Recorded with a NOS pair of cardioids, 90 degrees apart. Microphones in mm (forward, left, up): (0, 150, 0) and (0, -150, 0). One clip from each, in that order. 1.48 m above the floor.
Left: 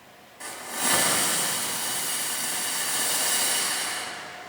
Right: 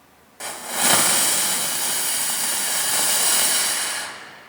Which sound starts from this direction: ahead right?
A hiss, at 0.4 s.